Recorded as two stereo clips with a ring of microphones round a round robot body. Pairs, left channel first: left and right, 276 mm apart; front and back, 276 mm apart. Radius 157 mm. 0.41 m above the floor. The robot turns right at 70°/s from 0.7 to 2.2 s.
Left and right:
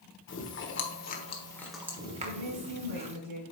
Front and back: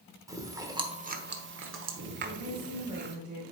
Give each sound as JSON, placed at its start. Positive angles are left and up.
{"t": 0.3, "sound": "chewing", "azimuth_deg": 105, "distance_m": 1.2}
{"t": 2.2, "sound": "a woman speaking", "azimuth_deg": -105, "distance_m": 2.5}